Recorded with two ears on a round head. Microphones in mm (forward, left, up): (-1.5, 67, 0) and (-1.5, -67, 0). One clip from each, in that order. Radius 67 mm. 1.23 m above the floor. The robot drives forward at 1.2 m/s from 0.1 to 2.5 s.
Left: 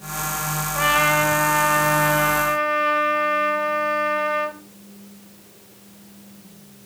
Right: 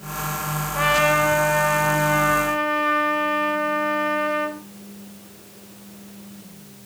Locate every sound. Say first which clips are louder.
0.8 s a trumpet: even; 15° left (ahead or behind), 1.5 m